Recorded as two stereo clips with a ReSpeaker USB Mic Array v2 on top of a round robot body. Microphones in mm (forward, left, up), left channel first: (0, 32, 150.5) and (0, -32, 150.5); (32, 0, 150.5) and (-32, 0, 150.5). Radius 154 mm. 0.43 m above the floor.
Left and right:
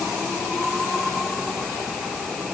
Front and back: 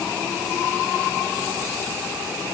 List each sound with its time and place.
Only background noise.